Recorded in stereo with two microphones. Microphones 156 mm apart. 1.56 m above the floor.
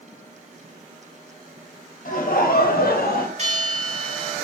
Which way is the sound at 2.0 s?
60° left (ahead or behind).